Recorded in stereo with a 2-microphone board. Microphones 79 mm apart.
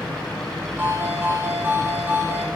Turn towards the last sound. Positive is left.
turn(degrees=-25)  # may be behind; listen again after turning